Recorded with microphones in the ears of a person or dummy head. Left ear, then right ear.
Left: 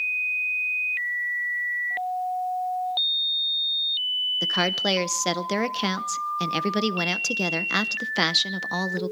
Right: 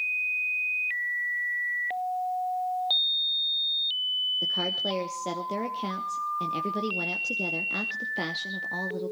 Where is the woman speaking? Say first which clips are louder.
Left 4 dB; 50° left (ahead or behind), 0.8 m.